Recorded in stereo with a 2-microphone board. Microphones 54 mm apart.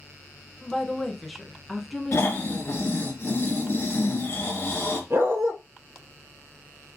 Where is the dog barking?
50° right (ahead or behind), 1.5 m.